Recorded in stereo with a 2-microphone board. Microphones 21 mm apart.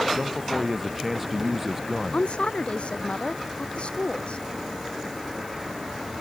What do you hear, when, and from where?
0.1 s a man speaking: 5° right (ahead or behind)
2.1 s a woman speaking: 60° left (ahead or behind)